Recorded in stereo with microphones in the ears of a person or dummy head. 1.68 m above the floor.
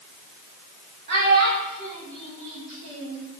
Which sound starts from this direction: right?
A child speaking, at 1.1 s.